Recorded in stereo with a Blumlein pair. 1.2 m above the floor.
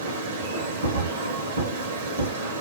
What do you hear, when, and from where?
0.0 s a machine running: 60° right, 0.8 m